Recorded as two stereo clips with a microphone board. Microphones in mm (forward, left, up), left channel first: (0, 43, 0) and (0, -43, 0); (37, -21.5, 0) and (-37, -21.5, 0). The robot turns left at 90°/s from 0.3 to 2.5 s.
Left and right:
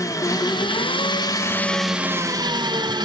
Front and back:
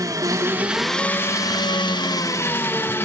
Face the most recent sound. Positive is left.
turn(degrees=-60)